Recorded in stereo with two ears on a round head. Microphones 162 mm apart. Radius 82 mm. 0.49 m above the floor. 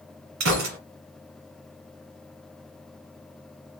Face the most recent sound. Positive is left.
turn(degrees=-75)  # may be behind; listen again after turning